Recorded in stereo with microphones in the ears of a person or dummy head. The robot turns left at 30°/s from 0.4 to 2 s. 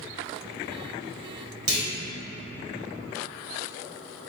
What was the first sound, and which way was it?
A clunk, 70° right (ahead or behind).